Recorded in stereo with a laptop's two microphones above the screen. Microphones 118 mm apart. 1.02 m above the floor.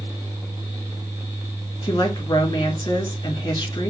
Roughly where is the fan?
Right.